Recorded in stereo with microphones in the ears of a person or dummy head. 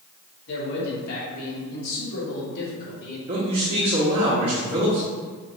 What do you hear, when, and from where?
0.5 s a man speaking: 70° left (ahead or behind), 1.8 m; by 3.2 s 55° left (ahead or behind), 3 m
3.3 s a man speaking: 45° right (ahead or behind), 1.6 m